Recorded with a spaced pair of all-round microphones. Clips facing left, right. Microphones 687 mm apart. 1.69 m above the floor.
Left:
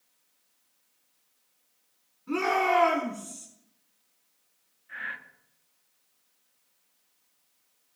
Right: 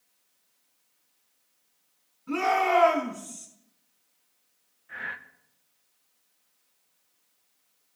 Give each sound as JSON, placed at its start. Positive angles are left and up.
{"t": 2.3, "sound": "a shout", "side_deg": -20, "distance_m": 4.5}
{"t": 4.9, "sound": "breathing", "side_deg": -65, "distance_m": 0.8}